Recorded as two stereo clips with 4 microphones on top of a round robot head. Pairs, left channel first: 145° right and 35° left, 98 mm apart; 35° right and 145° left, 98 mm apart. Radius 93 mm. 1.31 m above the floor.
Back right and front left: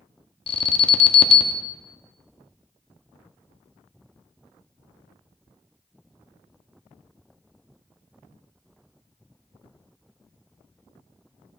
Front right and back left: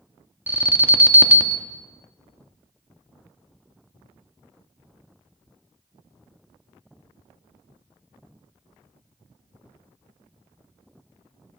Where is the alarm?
145° right, 0.8 m.